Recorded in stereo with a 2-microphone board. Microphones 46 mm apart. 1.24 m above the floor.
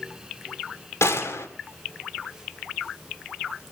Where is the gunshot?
75° left (ahead or behind), 2.5 m.